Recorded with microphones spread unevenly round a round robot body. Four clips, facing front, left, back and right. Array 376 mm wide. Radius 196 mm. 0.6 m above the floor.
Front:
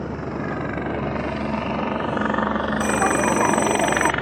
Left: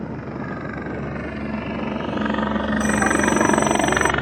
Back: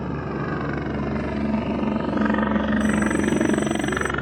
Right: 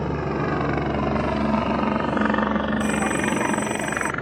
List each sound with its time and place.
0.0 s a helicopter: 125° right; by 4.2 s 120° left
2.8 s a bell: 15° left